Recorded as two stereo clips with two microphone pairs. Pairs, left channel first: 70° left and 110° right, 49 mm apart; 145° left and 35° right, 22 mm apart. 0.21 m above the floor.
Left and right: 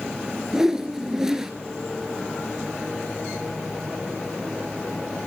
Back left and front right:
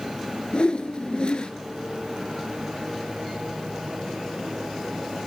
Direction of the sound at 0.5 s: 175° left.